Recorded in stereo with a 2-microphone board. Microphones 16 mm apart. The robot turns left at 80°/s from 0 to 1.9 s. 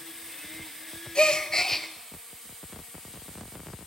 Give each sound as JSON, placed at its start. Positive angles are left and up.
{"t": 1.1, "sound": "a gasp", "azimuth_deg": 70, "distance_m": 0.5}